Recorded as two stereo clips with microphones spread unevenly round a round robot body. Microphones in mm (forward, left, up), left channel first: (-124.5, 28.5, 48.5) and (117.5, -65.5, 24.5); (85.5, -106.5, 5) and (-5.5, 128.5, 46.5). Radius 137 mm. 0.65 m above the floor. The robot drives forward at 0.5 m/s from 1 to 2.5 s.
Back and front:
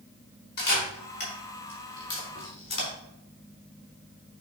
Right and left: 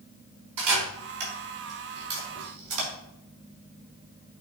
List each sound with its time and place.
0.6 s a camera shutter: 105° left, 4.5 m; by 2.9 s 115° left, 4.5 m